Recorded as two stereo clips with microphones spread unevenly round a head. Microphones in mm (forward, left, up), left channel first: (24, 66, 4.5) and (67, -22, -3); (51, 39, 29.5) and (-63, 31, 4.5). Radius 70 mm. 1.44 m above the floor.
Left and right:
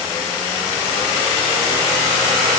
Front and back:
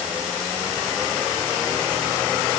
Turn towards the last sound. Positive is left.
No sound to turn to.